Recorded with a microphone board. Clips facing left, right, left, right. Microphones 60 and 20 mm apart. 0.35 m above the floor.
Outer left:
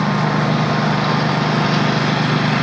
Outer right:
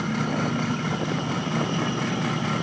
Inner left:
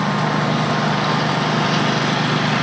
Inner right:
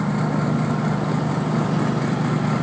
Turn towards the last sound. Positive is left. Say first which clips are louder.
# outer left 8 dB, inner left 4 dB
turn(degrees=70)  # may be behind; listen again after turning